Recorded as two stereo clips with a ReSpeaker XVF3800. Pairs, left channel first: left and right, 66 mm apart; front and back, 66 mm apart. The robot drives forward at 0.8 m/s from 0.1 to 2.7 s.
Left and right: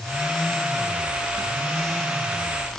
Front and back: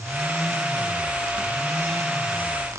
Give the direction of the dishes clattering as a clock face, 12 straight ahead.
I don't hear dishes clattering.